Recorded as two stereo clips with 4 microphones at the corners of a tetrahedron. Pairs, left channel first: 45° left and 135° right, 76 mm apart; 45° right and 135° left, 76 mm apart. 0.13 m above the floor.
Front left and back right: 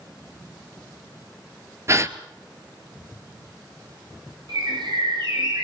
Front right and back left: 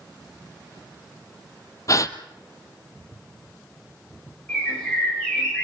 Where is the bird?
120° right, 6.5 m.